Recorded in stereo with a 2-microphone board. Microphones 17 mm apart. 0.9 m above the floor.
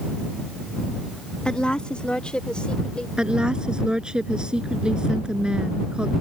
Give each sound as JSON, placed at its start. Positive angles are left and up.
{"t": 1.4, "sound": "a woman speaking", "side_deg": 65}
{"t": 3.2, "sound": "a woman speaking", "side_deg": -55}